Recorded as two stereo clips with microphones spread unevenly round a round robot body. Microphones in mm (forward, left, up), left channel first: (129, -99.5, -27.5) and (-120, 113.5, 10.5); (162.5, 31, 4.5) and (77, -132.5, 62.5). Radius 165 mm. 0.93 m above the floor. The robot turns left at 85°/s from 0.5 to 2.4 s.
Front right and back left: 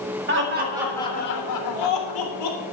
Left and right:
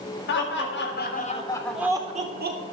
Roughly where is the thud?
I don't hear a thud.